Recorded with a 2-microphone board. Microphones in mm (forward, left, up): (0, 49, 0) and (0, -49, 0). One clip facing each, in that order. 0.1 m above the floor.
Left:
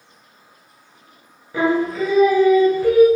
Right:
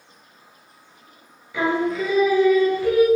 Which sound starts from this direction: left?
Singing, at 1.5 s.